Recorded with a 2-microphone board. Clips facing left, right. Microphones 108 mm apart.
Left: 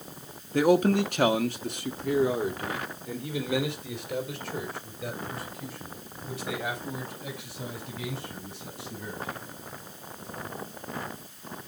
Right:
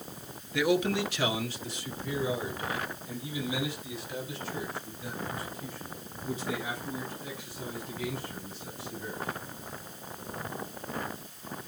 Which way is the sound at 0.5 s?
40° left (ahead or behind).